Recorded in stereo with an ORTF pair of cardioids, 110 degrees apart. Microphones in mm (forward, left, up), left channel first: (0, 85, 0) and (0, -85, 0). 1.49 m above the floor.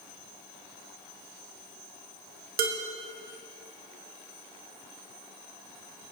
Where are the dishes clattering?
65° right, 1.7 m.